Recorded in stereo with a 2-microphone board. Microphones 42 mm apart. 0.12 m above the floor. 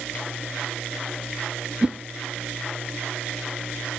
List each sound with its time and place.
1.8 s a whoosh: 20° right (ahead or behind), 1.0 m